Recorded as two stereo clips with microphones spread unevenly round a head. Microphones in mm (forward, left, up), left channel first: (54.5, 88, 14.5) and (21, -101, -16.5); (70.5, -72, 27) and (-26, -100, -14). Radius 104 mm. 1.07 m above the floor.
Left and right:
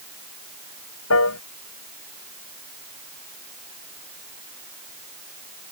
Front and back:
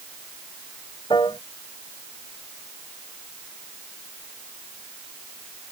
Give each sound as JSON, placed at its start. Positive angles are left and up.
{"t": 1.1, "sound": "a piano", "azimuth_deg": 85}